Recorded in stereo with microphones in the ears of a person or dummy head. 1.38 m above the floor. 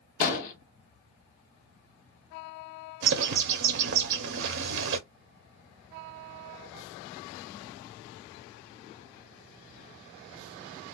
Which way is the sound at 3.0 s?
65° right (ahead or behind).